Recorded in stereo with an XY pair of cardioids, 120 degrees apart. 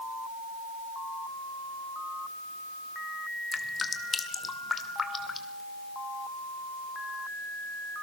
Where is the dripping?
30° left, 2.0 m.